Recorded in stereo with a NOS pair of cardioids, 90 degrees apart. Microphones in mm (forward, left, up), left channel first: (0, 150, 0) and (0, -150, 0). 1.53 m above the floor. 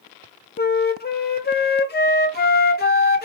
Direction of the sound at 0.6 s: 35° left.